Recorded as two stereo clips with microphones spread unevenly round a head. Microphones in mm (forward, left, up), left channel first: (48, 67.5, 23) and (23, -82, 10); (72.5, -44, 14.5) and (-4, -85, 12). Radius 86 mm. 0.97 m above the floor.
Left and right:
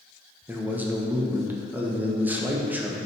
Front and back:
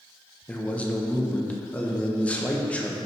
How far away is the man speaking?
About 0.9 m.